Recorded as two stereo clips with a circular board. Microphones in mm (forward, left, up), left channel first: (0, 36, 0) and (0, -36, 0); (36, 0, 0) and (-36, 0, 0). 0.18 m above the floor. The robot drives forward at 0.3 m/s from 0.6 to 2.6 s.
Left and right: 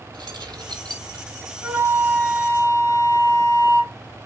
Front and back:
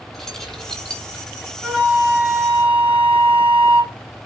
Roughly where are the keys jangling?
Right.